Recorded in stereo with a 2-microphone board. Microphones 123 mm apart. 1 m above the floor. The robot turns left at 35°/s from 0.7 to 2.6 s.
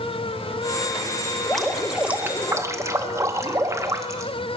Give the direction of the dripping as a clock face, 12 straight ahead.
12 o'clock.